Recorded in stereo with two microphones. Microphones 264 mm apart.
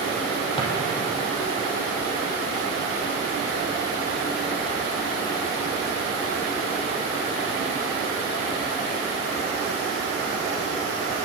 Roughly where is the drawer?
Centre.